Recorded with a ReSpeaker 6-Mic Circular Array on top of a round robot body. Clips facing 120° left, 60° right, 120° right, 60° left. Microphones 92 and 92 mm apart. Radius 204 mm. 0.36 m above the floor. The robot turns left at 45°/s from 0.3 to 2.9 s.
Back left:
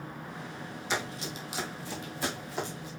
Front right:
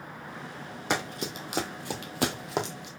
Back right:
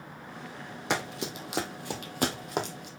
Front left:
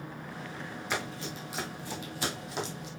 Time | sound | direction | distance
0.9 | running footsteps | 95° right | 1.6 m